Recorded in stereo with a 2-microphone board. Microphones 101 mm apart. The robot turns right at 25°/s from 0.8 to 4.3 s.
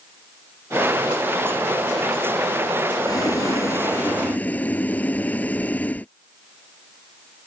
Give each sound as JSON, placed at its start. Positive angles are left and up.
{"t": 3.0, "sound": "boiling", "azimuth_deg": 130}